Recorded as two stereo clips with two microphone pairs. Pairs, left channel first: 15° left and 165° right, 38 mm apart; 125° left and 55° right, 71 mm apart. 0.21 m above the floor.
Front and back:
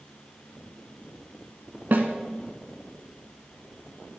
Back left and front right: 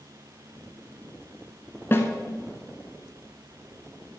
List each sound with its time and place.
1.9 s a snare drum: straight behind, 1.2 m